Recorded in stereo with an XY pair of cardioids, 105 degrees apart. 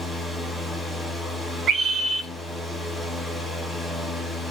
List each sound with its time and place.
0.0 s a fan: 20° left, 1.6 m
1.7 s a scream: 65° right, 1.0 m